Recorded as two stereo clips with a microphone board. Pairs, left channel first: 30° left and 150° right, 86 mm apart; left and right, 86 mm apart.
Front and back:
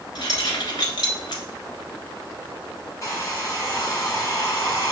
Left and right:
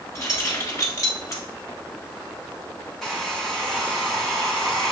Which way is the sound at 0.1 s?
45° left.